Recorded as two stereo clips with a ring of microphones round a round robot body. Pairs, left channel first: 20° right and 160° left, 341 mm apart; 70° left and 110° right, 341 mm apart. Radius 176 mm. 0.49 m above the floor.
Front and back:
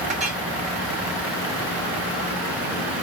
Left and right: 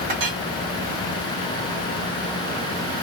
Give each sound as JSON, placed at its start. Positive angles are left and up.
{"t": 0.1, "sound": "a clink", "azimuth_deg": -135, "distance_m": 1.9}